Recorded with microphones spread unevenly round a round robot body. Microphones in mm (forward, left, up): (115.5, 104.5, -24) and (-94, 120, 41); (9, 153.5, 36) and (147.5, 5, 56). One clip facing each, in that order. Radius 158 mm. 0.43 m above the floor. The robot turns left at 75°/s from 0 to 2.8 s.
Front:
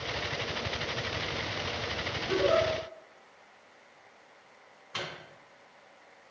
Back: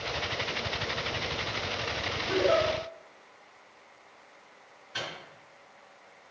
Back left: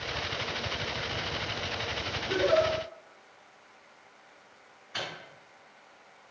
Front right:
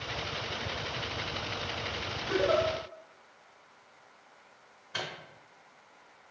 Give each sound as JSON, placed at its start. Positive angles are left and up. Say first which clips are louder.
{"t": 2.3, "sound": "a giggle", "louder": "back 1 dB, back left 2 dB", "azimuth_deg": -45, "distance_m": 2.0}
{"t": 4.9, "sound": "a microwave", "louder": "even, back left 1 dB", "azimuth_deg": -15, "distance_m": 2.0}